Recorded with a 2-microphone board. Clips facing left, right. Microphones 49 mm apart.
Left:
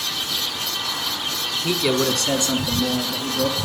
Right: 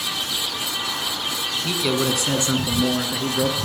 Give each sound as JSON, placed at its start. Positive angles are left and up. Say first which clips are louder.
{"t": 1.6, "sound": "a man speaking", "louder": "left 2 dB", "side_deg": 15, "distance_m": 1.2}